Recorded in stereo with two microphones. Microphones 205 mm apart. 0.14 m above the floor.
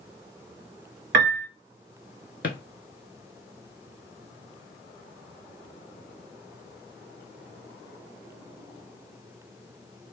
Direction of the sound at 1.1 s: 65° right (ahead or behind).